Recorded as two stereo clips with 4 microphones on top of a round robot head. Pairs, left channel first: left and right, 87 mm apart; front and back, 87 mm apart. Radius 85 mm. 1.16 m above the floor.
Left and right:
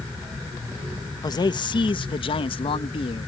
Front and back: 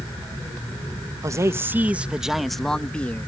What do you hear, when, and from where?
1.2 s a man speaking: 125° left; by 3.3 s 70° left